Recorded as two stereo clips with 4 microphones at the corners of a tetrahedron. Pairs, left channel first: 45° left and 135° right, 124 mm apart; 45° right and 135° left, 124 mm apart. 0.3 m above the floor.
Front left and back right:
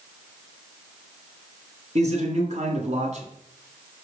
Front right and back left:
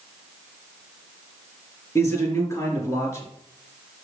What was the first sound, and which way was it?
A man speaking, 110° right.